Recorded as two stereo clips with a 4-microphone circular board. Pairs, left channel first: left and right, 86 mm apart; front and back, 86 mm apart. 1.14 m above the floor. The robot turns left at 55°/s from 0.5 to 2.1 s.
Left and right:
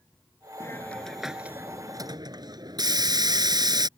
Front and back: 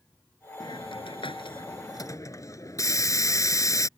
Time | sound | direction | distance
0.6 | a hiss | 30° left | ?